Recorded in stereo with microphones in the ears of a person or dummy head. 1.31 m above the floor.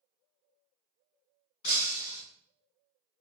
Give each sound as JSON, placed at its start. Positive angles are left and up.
{"t": 1.6, "sound": "breaking glass", "side_deg": 60, "distance_m": 2.0}